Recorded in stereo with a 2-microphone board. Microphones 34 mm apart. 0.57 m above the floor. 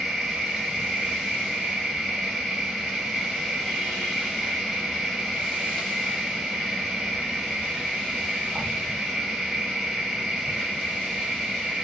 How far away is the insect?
About 1.1 m.